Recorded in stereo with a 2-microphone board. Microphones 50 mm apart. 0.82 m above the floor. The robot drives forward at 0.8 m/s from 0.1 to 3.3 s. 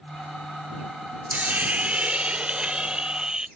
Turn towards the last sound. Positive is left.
turn(degrees=-15)  # may be behind; listen again after turning